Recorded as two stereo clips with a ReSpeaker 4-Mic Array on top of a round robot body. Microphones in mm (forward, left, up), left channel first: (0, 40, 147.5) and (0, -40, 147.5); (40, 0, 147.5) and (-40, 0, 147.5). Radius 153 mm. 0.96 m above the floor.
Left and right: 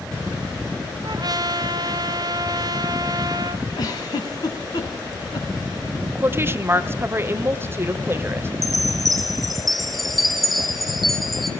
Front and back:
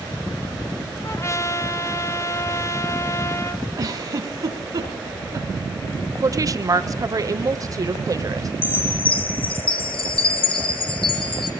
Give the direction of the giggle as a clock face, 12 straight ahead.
8 o'clock.